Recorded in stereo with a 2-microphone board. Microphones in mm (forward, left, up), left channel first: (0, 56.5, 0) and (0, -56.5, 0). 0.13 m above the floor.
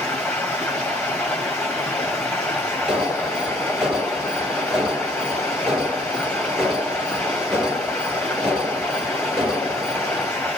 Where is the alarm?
5° right (ahead or behind), 3 m.